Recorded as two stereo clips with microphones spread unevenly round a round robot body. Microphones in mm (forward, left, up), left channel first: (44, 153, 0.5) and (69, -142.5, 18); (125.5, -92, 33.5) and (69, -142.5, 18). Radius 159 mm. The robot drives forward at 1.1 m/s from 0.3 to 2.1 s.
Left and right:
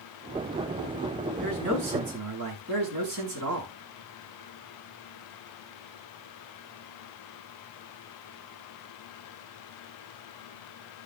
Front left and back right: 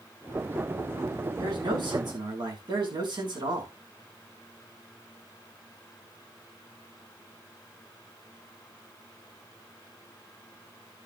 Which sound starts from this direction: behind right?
A man speaking, at 1.4 s.